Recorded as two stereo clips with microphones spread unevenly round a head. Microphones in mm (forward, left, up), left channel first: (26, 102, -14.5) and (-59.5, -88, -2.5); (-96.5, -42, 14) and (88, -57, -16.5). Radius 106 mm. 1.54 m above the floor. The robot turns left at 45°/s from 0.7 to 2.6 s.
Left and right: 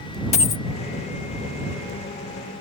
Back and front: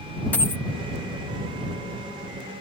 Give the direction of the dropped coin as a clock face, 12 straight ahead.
8 o'clock.